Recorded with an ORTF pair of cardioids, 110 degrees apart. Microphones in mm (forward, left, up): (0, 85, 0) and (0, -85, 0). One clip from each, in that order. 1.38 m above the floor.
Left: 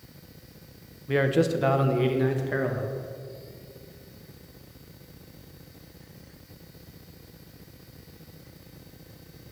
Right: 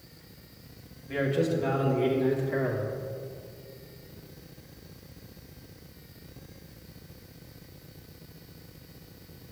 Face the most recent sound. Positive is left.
turn(degrees=60)